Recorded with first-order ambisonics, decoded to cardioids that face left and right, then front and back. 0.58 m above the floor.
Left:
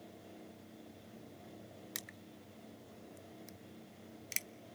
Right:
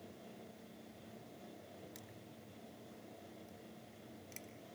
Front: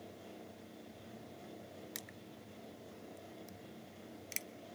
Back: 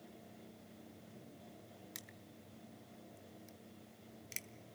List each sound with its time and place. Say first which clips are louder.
1.9 s crushing: left 7 dB, front 4 dB; 75° left, 0.6 m